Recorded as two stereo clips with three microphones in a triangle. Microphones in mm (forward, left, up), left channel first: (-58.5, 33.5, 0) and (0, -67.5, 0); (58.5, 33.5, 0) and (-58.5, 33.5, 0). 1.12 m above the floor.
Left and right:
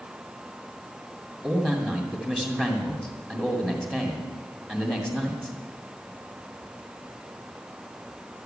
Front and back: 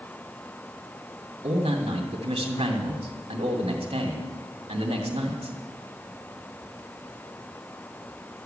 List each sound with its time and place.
1.4 s a man speaking: 140° right, 2.5 m